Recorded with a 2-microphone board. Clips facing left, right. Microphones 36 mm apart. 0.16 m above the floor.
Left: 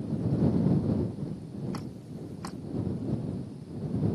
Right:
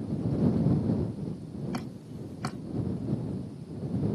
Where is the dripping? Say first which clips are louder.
Right 2 dB; 55° right (ahead or behind).